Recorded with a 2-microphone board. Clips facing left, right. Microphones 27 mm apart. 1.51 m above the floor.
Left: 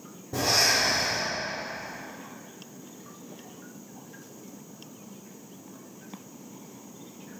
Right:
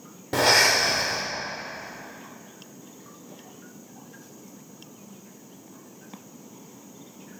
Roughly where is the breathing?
Right.